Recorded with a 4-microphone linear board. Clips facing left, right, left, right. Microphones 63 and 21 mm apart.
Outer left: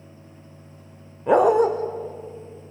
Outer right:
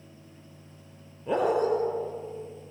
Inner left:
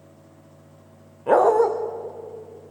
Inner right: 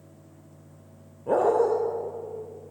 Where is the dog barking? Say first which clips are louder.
Outer left 9 dB, inner left 5 dB; 80° left, 3 m.